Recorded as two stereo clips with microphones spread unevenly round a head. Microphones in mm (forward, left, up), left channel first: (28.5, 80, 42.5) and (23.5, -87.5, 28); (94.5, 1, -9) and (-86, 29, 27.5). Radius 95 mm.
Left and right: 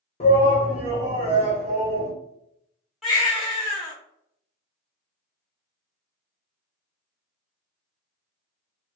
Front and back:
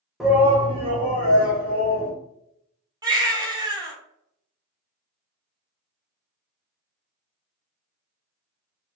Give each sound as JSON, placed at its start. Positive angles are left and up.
{"t": 0.2, "sound": "a shout", "azimuth_deg": 100, "distance_m": 0.5}
{"t": 3.0, "sound": "a baby crying", "azimuth_deg": 170, "distance_m": 1.1}